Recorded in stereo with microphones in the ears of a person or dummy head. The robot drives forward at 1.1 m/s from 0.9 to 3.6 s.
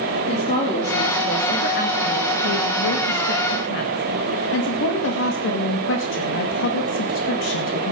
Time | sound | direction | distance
0.3 | a woman speaking | 35° left (ahead or behind) | 2.5 m